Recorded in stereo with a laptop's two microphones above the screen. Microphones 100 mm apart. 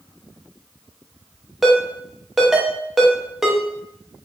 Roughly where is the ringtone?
Centre.